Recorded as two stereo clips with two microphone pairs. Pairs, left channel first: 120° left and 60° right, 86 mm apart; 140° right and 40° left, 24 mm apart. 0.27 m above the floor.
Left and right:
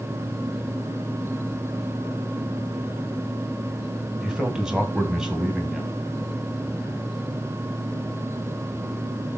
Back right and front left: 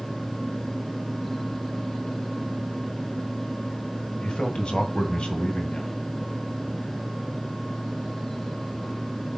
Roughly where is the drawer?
I don't hear a drawer.